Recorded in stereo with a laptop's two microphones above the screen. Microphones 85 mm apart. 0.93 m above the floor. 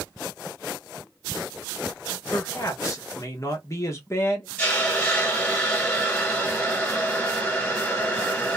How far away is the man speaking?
About 1.3 m.